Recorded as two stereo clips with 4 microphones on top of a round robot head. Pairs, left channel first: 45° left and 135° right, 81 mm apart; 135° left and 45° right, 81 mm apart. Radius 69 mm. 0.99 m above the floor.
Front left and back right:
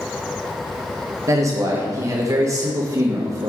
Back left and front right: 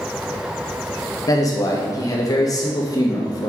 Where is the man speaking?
175° left, 1.7 m.